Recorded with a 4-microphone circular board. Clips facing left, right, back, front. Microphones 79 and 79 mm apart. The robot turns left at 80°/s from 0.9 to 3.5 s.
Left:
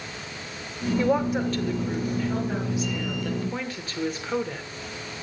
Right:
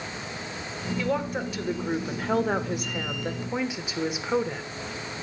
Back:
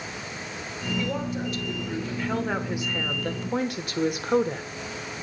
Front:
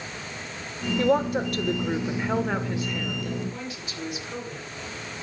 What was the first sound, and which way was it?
A woman speaking, 35° left.